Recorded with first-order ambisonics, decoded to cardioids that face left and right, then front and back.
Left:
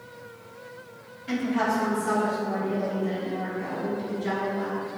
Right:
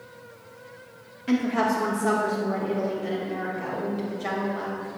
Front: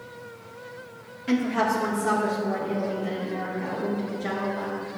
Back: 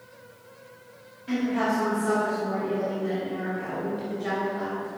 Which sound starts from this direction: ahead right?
A woman speaking, at 1.3 s.